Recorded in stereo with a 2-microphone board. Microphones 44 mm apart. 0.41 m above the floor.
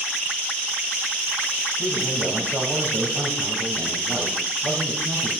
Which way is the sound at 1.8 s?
50° right (ahead or behind).